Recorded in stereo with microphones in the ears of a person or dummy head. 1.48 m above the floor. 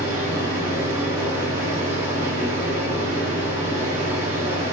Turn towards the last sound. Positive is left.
turn(degrees=-20)  # may be behind; listen again after turning